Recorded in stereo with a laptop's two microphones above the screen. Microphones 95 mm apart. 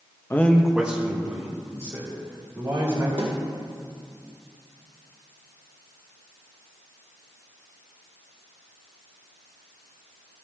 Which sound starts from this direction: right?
A snare drum, at 3.2 s.